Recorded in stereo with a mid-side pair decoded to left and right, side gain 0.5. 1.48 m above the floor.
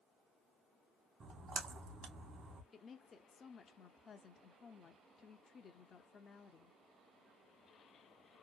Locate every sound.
1.2 s a splash: 45° right, 1.2 m
2.7 s a woman speaking: 45° left, 0.6 m